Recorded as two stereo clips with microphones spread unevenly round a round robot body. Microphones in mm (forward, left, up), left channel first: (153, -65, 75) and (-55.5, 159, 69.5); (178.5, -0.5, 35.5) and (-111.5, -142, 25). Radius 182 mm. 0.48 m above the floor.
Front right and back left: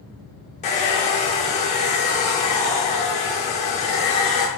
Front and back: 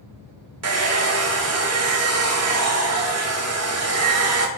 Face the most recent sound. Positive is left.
turn(degrees=-115)